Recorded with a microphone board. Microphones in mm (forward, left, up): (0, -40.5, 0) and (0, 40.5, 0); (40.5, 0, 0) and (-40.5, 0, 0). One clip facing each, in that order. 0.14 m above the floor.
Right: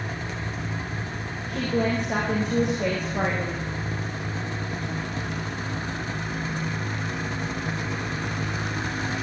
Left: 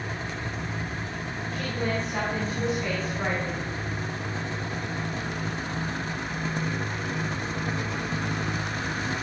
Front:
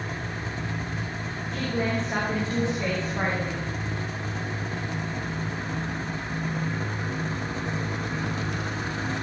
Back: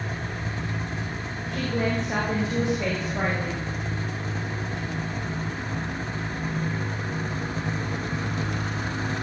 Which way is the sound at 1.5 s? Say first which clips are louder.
Right 6 dB, back 1 dB; 110° right.